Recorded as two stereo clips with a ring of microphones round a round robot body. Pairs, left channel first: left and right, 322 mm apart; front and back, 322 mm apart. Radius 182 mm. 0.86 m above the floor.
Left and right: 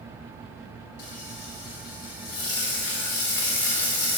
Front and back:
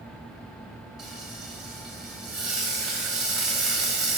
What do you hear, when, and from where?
1.0 s frying: 90° left, 2.5 m